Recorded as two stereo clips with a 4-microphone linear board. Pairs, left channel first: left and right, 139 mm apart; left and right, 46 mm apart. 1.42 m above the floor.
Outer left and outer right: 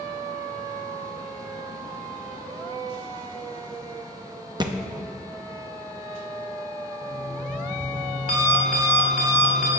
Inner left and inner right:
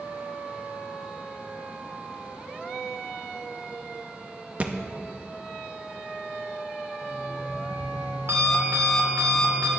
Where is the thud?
30° right (ahead or behind), 0.8 m.